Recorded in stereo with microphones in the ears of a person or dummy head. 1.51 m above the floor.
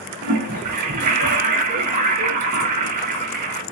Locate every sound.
0.2 s a toilet flushing: 45° right (ahead or behind), 0.6 m